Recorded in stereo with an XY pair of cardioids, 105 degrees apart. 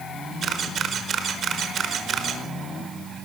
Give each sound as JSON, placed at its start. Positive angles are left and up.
{"t": 0.4, "sound": "a camera shutter", "azimuth_deg": -55, "distance_m": 5.0}